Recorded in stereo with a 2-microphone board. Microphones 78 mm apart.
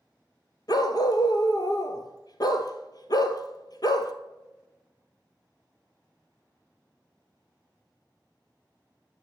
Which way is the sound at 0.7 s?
55° left (ahead or behind).